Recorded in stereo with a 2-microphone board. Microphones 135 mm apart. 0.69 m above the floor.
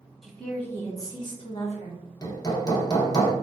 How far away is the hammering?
About 0.6 m.